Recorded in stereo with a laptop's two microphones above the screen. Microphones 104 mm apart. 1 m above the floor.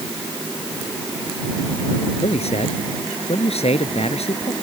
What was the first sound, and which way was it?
A man speaking, 80° left.